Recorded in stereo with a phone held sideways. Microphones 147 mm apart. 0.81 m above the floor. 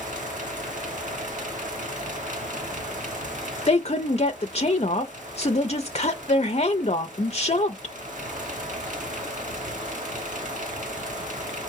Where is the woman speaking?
45° left (ahead or behind), 0.5 m.